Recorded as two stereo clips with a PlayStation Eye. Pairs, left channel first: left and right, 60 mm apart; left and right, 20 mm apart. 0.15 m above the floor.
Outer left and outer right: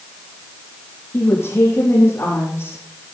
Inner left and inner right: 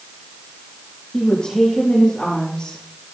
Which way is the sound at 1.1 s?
45° left (ahead or behind).